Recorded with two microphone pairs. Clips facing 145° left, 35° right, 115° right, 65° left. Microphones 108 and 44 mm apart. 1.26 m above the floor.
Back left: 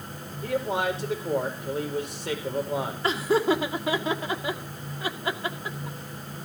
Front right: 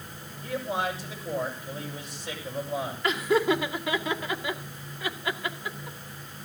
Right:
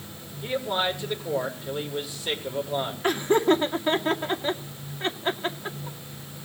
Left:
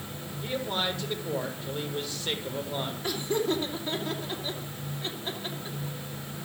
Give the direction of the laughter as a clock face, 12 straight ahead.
5 o'clock.